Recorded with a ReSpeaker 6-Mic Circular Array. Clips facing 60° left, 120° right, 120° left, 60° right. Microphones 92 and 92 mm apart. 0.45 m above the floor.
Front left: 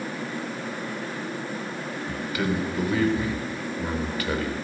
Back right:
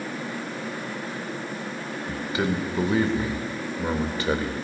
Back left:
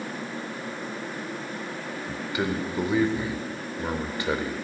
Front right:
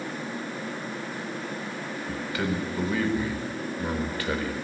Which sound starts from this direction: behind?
A man speaking, at 2.1 s.